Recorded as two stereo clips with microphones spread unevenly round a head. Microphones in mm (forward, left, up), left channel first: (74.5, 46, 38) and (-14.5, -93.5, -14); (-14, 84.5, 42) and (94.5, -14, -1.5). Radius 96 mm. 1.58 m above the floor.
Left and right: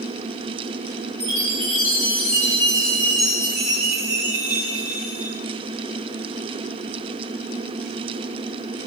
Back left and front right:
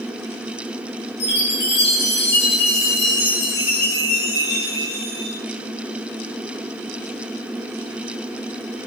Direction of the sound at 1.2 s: 140° left.